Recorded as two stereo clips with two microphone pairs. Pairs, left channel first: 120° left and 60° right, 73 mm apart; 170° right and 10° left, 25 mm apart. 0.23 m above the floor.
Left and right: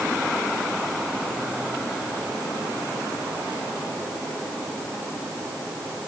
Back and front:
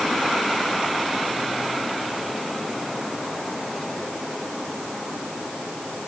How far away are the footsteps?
No footsteps in this recording.